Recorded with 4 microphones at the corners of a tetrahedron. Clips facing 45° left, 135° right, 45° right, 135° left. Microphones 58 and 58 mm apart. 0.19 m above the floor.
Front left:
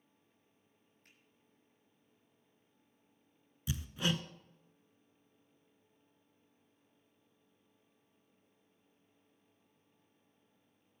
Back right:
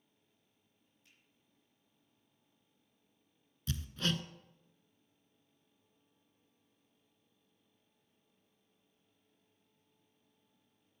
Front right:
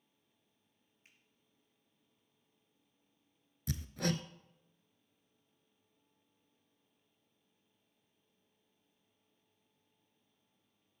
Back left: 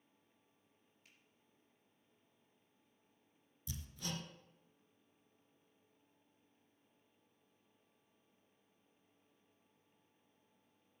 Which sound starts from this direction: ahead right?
Hammering, at 3.7 s.